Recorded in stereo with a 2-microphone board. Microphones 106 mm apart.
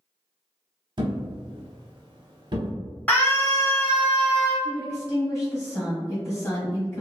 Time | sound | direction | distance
1.0 | a thud | 45° right (ahead or behind) | 0.6 m
3.1 | a scream | 15° left (ahead or behind) | 1.1 m
4.6 | a woman speaking | 25° left (ahead or behind) | 1.5 m